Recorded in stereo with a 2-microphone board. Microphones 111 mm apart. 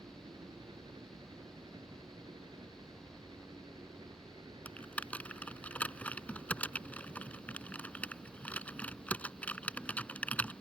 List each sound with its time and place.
0.0 s a helicopter: 40° right (ahead or behind)
4.7 s typing on a keyboard: 10° left (ahead or behind)